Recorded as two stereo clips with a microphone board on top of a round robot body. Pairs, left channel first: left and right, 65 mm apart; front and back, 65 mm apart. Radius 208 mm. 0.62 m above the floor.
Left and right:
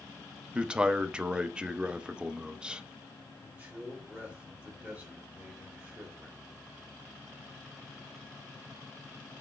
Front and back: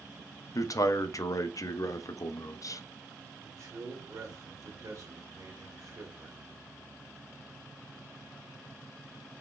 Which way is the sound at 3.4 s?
160° right.